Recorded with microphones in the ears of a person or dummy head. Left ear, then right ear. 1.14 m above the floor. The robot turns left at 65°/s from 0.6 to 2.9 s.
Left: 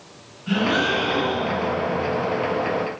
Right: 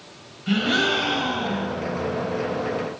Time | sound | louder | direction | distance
0.5 | a gasp | even | 30° right | 1.3 m